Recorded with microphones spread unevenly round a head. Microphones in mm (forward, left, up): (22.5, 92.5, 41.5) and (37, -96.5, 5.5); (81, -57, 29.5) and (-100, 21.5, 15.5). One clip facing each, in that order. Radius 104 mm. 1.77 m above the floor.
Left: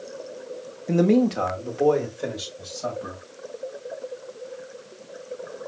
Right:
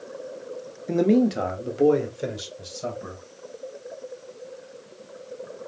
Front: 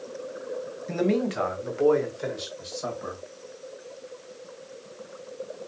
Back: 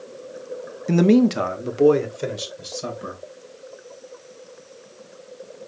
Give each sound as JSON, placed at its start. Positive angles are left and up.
{"t": 0.9, "sound": "a man speaking", "azimuth_deg": 180, "distance_m": 0.7}